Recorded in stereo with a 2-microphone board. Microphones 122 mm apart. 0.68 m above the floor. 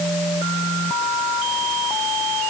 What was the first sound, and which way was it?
Only background noise.